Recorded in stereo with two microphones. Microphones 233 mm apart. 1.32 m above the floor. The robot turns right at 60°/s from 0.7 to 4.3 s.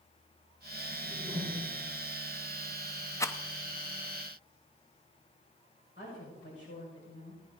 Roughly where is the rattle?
Centre.